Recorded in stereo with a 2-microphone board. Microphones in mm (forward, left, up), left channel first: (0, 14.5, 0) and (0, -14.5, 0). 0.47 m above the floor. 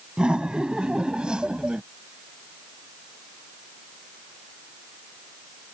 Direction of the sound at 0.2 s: 30° right (ahead or behind).